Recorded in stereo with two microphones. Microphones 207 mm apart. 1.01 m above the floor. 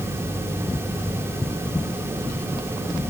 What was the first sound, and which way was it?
Only background noise.